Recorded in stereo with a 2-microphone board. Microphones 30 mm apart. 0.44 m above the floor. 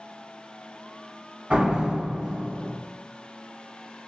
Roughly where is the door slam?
Right.